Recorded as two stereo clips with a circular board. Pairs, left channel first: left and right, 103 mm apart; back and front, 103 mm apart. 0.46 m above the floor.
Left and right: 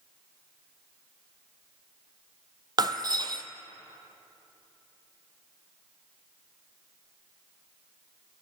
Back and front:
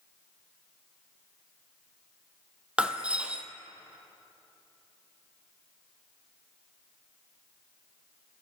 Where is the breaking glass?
70° right, 0.6 m.